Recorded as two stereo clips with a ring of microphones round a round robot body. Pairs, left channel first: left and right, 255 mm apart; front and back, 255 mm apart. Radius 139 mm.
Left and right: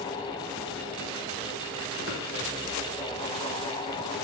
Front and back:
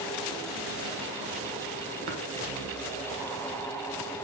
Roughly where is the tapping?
Behind right.